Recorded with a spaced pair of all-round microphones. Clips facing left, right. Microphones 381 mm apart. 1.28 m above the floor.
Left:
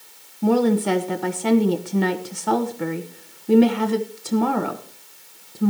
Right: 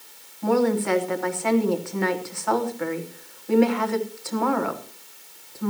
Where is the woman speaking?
45° left (ahead or behind), 1.0 m.